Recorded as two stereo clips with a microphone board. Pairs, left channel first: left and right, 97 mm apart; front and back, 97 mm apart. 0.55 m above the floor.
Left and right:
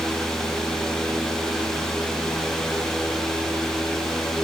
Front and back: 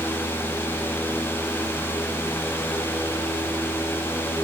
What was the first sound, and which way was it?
Only background noise.